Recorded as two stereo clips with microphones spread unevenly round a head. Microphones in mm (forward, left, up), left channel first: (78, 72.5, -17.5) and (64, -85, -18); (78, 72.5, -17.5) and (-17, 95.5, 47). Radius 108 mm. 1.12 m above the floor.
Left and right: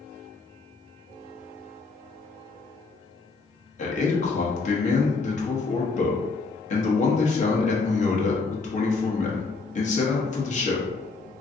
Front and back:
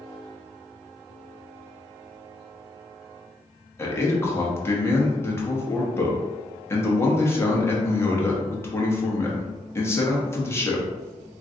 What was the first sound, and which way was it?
A man speaking, 45° left.